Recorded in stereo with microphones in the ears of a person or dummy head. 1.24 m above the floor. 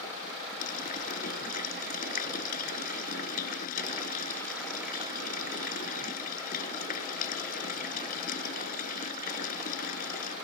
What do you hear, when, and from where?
0.6 s a running tap: 55° left (ahead or behind)